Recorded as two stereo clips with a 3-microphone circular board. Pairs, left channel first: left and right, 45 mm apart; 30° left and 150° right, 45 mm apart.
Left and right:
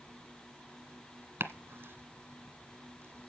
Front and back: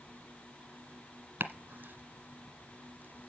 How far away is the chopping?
About 1.7 m.